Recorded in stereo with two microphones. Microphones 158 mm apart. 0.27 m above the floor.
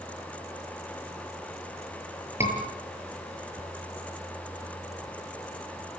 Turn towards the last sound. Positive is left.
turn(degrees=-15)  # may be behind; listen again after turning